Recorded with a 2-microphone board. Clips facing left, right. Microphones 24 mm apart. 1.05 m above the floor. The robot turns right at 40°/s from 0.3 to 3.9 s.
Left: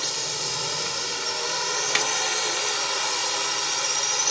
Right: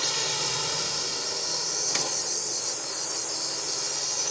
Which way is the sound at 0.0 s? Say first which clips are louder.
Right 1 dB; 10° right.